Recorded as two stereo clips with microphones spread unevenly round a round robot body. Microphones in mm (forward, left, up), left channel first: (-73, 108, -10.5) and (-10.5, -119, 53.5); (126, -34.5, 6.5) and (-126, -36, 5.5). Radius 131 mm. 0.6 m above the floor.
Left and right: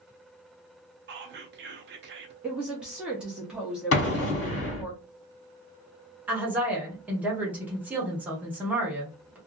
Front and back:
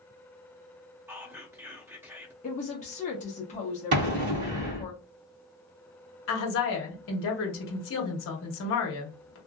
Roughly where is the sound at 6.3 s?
Ahead.